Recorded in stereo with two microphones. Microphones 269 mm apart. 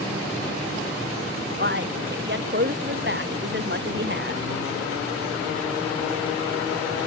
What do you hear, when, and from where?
1.6 s a man speaking: 45° right (ahead or behind)